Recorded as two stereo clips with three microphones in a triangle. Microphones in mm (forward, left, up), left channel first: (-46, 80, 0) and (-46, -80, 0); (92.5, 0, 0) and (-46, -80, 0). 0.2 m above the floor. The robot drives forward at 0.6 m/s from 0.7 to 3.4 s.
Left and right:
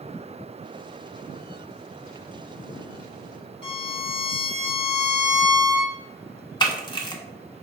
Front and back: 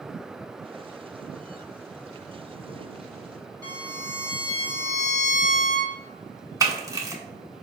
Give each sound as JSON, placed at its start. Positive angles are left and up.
{"t": 3.6, "sound": "a violin", "azimuth_deg": 145, "distance_m": 1.5}
{"t": 6.6, "sound": "a camera shutter", "azimuth_deg": 145, "distance_m": 0.8}